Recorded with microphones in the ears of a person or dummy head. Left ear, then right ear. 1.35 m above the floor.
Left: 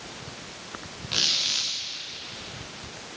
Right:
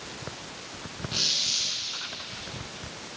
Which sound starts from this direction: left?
A squeak, at 1.1 s.